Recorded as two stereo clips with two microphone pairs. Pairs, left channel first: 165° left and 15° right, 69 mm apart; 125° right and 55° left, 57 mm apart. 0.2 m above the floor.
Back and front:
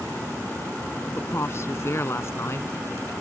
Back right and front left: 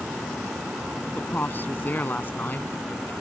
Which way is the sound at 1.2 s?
165° right.